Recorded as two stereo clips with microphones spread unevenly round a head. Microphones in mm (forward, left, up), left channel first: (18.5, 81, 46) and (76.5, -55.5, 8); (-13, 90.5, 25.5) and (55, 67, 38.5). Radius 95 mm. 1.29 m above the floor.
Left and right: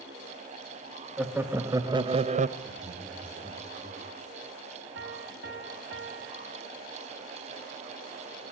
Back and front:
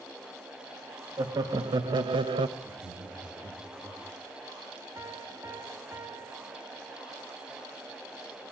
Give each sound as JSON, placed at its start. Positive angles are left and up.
{"t": 1.2, "sound": "laughter", "azimuth_deg": 15, "distance_m": 1.6}
{"t": 2.6, "sound": "laughter", "azimuth_deg": 25, "distance_m": 3.5}
{"t": 5.0, "sound": "a piano", "azimuth_deg": -95, "distance_m": 1.4}